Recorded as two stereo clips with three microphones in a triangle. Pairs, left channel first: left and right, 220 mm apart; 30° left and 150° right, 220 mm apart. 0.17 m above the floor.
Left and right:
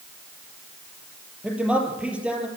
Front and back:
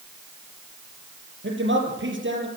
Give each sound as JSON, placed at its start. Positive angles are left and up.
{"t": 1.4, "sound": "a man speaking", "azimuth_deg": -175, "distance_m": 5.0}